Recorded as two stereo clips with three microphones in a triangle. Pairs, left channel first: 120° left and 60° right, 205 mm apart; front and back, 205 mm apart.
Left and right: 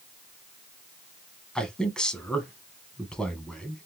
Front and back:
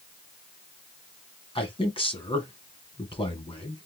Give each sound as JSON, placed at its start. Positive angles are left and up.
{"t": 1.6, "sound": "a man speaking", "azimuth_deg": 35, "distance_m": 1.2}